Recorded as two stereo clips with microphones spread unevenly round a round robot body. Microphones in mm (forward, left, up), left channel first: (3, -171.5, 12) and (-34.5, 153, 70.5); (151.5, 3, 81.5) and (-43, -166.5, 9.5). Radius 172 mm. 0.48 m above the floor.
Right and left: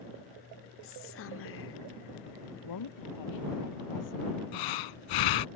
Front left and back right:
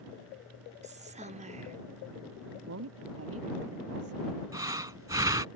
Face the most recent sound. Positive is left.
turn(degrees=-60)